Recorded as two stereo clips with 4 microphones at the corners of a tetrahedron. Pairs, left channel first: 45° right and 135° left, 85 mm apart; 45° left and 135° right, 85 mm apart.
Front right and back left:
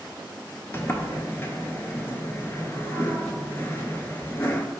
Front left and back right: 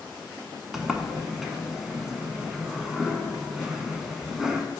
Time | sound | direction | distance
0.7 | a sliding door | 55° right | 0.5 m